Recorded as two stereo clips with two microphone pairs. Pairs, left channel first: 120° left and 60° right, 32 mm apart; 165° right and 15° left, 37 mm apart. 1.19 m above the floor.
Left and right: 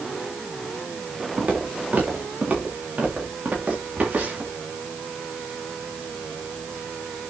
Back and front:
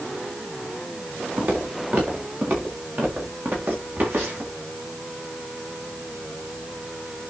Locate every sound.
1.4 s footsteps: 15° right, 4.5 m; by 4.5 s 10° right, 7 m